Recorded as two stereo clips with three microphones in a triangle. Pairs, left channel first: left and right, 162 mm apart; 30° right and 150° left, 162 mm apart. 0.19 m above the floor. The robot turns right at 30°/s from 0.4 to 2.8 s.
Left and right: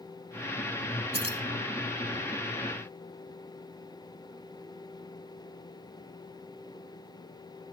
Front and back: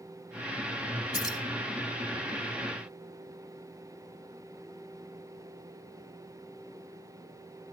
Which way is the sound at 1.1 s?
80° right.